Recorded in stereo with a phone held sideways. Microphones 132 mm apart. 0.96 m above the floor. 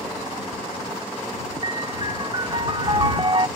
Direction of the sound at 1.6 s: 40° right (ahead or behind).